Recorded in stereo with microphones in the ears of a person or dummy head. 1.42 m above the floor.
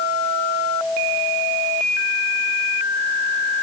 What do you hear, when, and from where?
Only background noise.